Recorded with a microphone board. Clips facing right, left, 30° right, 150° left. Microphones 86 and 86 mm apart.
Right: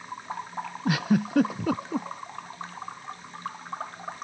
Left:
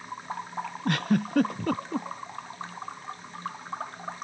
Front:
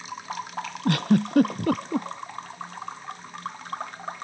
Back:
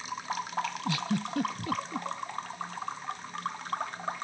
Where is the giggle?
5° right.